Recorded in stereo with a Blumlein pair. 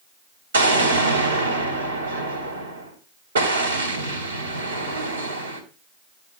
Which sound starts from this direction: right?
An explosion, at 0.5 s.